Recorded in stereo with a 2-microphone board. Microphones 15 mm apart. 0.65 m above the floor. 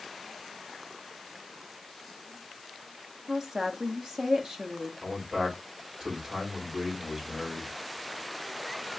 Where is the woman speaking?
50° right (ahead or behind), 1.1 m.